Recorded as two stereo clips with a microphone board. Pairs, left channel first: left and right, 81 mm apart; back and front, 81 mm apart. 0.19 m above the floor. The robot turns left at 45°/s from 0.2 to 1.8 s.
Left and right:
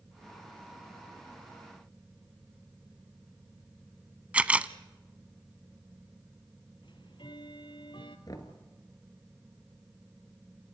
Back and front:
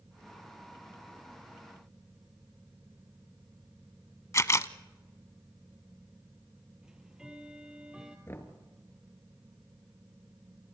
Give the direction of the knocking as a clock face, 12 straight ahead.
8 o'clock.